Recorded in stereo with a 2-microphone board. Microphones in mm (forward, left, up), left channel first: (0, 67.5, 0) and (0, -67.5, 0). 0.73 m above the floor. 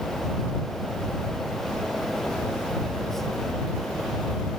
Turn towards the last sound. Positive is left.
No sound to turn to.